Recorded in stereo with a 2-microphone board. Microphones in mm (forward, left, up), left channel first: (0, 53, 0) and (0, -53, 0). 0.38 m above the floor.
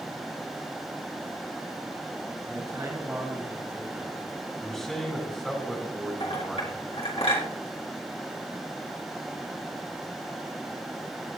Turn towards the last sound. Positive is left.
turn(degrees=70)  # may be behind; listen again after turning